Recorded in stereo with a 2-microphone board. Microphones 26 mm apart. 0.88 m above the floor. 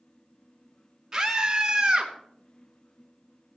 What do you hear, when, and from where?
1.1 s a scream: 15° right (ahead or behind), 2.5 m; by 2.1 s 25° right (ahead or behind), 3 m